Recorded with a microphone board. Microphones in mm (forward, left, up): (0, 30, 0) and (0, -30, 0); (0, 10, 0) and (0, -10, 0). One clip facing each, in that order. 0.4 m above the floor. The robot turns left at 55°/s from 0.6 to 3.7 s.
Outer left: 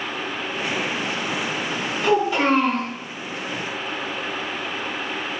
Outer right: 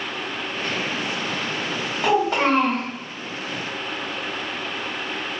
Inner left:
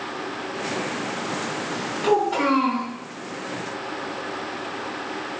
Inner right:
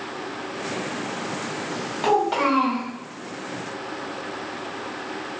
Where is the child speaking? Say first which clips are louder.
Even, even; 85° right, 2.0 m; by 2.9 s 130° right, 2.0 m.